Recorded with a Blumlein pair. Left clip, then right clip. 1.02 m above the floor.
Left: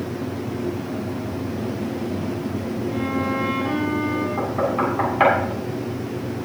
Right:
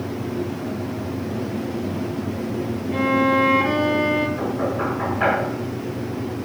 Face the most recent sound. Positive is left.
turn(degrees=55)